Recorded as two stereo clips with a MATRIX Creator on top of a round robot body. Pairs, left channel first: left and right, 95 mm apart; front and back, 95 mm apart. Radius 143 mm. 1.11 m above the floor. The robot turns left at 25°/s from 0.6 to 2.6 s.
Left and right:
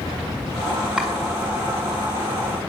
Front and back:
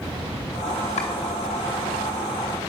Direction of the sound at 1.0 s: 10° right.